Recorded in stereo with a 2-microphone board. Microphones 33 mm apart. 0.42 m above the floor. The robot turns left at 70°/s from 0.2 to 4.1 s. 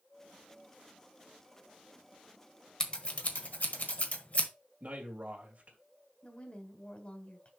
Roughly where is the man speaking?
Right.